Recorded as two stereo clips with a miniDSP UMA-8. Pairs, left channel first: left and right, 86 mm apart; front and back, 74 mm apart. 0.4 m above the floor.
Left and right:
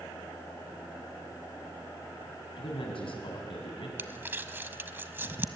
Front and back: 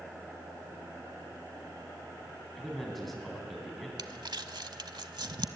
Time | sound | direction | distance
2.6 | a man speaking | 90° left | 3.5 m
4.0 | crumpling | 155° right | 0.9 m